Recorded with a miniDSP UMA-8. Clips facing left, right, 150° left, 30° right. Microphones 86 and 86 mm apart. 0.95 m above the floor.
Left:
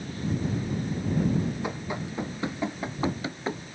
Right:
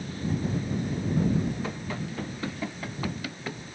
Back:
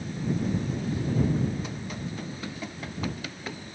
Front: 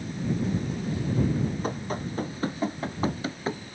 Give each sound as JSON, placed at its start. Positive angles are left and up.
{"t": 1.6, "sound": "running footsteps", "azimuth_deg": 15}